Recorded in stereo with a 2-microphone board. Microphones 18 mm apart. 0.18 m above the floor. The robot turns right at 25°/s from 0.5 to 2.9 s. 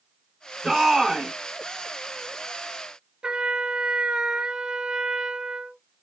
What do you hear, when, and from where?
0.6 s a shout: 20° right (ahead or behind), 2 m; by 1.3 s 30° right (ahead or behind), 2 m
3.2 s a trumpet: 75° right (ahead or behind), 0.7 m